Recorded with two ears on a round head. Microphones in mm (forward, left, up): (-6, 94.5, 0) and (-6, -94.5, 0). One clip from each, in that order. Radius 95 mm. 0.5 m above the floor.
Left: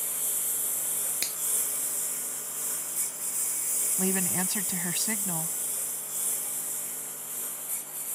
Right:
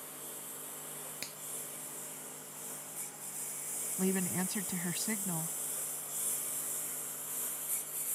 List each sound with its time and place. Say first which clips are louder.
0.0 s a lawn mower: left 12 dB; 50° left (ahead or behind); by 8.1 s centre (ahead or behind)
1.2 s a finger snap: left 10 dB; 45° left (ahead or behind)
4.0 s a woman speaking: left 3 dB; 25° left (ahead or behind)